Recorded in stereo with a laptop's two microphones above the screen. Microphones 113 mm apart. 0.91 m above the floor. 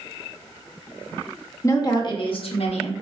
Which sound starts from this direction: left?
A woman speaking, at 1.6 s.